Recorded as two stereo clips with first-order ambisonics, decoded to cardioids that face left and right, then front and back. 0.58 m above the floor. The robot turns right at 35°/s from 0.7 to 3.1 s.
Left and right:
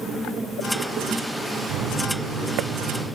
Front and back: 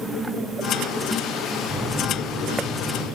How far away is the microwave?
About 6.5 m.